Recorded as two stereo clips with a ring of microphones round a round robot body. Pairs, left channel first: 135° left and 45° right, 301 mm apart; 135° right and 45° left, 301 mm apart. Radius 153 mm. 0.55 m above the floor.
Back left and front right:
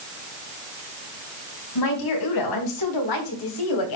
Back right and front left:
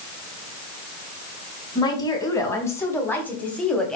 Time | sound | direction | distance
1.8 | a woman speaking | 150° left | 4.5 m